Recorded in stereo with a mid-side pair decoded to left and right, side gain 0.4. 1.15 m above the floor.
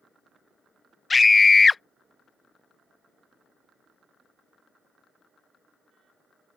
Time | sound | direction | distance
1.1 | a scream | 35° left | ?